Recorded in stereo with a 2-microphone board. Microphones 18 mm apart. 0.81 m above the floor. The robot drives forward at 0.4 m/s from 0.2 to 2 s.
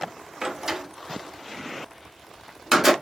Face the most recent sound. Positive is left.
turn(degrees=-15)  # may be behind; listen again after turning